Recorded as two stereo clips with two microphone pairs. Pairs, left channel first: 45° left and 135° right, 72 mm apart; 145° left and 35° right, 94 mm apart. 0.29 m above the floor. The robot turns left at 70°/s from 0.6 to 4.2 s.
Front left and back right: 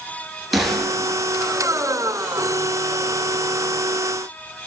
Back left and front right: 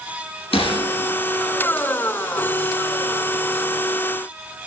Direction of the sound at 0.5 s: 135° left.